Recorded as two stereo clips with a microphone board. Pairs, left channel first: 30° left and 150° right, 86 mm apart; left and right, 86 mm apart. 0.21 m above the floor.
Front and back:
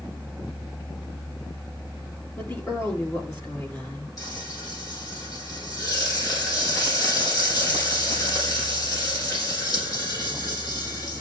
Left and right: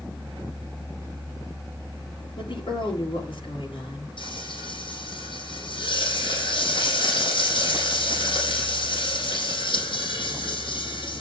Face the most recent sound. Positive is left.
turn(degrees=75)